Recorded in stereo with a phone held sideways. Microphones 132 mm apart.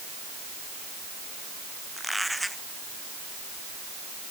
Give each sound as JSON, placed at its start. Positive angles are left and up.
{"t": 2.0, "sound": "a squeak", "side_deg": 0}